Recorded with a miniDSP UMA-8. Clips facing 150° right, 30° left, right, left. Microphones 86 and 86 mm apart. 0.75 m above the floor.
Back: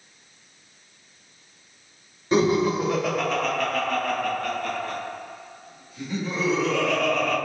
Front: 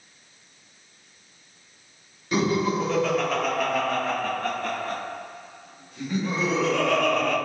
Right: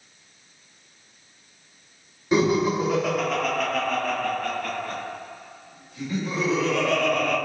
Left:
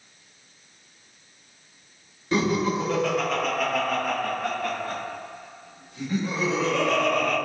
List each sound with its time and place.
2.3 s laughter: 140° right, 1.1 m; by 7.4 s 35° left, 2.5 m